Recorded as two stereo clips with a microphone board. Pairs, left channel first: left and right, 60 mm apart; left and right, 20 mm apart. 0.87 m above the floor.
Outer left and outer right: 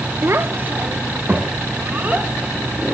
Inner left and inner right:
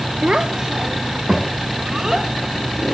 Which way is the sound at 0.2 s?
45° right (ahead or behind).